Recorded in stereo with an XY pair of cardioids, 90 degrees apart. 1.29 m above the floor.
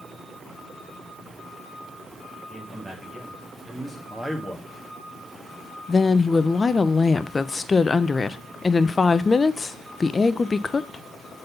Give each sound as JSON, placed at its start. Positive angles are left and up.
{"t": 2.5, "sound": "a man speaking", "azimuth_deg": -25, "distance_m": 1.8}
{"t": 4.1, "sound": "a man speaking", "azimuth_deg": -10, "distance_m": 1.7}
{"t": 5.9, "sound": "a woman speaking", "azimuth_deg": 30, "distance_m": 0.5}